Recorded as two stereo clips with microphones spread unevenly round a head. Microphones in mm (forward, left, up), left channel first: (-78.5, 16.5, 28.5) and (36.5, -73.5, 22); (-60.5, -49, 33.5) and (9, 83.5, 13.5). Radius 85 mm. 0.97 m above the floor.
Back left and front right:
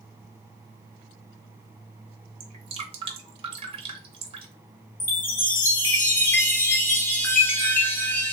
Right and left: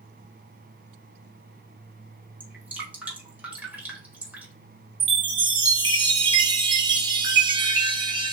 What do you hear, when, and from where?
2.4 s dripping: 10° right, 1.0 m
5.0 s a chime: 70° left, 1.0 m